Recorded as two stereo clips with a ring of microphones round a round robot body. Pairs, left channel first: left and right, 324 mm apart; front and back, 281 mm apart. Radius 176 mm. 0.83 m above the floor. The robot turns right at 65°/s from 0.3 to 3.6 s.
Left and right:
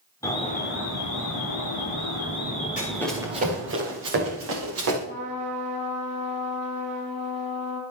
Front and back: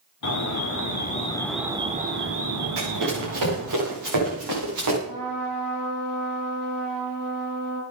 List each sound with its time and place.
0.2 s an alarm: 10° left, 3 m; by 3.8 s 135° right, 3 m
2.8 s running footsteps: 155° left, 8.5 m; by 5.0 s 140° right, 10 m
5.0 s a trumpet: 160° right, 10 m